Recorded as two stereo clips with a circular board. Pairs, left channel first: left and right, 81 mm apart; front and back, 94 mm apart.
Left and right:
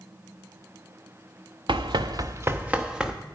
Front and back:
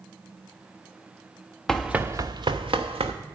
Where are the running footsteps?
85° right, 0.7 m; by 3.1 s 170° right, 1.3 m.